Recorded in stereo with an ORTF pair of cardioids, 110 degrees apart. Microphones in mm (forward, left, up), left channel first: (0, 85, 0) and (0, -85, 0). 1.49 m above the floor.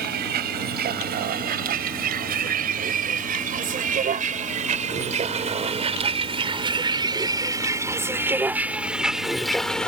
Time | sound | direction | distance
0.0 | a vehicle | 65° right | ?